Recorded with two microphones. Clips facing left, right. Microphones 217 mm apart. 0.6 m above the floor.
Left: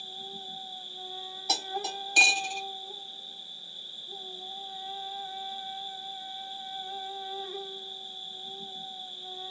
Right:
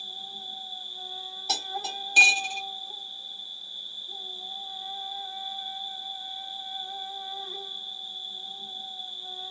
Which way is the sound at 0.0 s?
25° left (ahead or behind).